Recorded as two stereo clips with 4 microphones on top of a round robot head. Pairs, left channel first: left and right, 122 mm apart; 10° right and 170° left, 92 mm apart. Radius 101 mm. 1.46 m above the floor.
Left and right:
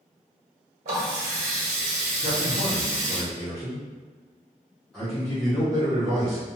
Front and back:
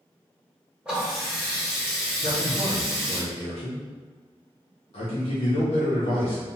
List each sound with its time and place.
0.8 s a running tap: 105° right, 1.0 m
2.2 s a man speaking: 5° left, 0.6 m